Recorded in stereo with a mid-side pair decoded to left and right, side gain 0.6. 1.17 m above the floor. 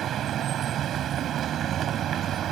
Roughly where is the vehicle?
Ahead right.